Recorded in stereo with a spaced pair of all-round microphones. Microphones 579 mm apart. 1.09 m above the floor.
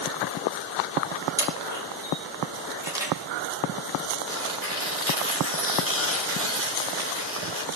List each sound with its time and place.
1.4 s a camera shutter: 5° right (ahead or behind), 3.5 m
4.3 s tearing paper: 20° left (ahead or behind), 1.8 m